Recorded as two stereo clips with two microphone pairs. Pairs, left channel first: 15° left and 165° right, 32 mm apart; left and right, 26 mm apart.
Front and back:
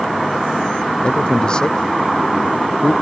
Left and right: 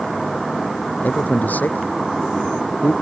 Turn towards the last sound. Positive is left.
turn(degrees=75)